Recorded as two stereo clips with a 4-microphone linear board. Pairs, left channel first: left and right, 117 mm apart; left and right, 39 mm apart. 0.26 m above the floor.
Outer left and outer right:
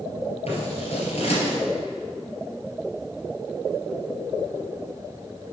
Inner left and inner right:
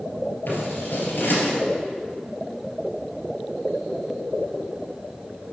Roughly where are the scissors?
Left.